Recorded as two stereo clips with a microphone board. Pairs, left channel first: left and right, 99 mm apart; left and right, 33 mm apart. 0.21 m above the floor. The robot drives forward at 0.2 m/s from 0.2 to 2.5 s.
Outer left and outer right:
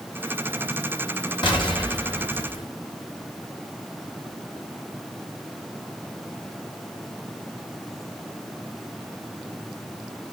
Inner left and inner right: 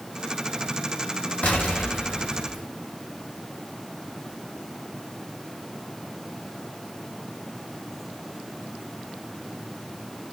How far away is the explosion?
About 2.5 m.